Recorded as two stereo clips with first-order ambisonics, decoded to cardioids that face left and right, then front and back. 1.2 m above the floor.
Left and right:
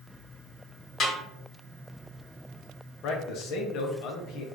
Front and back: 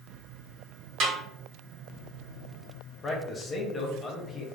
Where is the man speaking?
70° left, 0.7 m.